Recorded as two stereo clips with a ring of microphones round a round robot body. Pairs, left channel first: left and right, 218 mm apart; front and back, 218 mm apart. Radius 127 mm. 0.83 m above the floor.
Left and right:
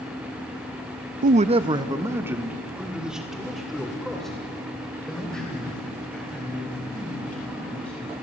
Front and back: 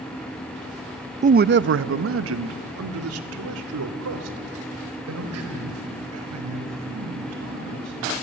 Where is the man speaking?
130° right, 0.5 m; by 8.2 s 175° left, 5.5 m.